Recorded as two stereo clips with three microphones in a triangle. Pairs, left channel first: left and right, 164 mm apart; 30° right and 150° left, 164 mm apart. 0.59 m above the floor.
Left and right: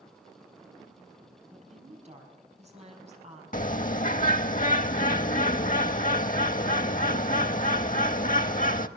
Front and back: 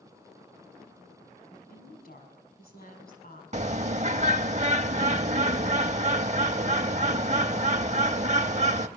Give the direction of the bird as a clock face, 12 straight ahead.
8 o'clock.